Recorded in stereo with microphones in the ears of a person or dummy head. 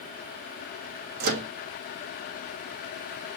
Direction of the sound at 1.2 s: 60° right (ahead or behind).